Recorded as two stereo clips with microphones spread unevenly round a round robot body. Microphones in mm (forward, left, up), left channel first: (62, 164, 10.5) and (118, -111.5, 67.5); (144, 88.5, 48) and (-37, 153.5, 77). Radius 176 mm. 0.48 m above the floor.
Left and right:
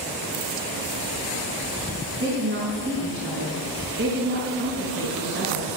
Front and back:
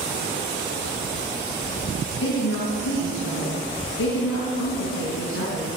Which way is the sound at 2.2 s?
30° right.